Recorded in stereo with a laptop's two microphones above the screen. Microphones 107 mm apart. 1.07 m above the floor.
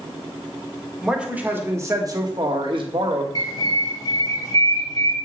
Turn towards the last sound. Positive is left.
turn(degrees=40)  # may be behind; listen again after turning